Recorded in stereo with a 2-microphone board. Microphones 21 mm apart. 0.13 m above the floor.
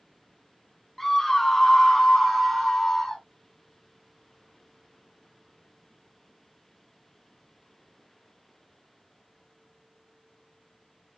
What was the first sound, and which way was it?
A scream, 10° left (ahead or behind).